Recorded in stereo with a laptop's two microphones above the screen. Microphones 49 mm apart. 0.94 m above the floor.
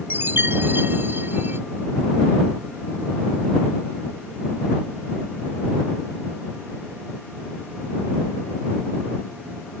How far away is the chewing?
No chewing in this recording.